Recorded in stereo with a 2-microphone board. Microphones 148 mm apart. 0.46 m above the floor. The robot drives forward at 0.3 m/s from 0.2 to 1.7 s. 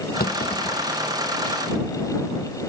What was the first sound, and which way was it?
A clunk, 80° left.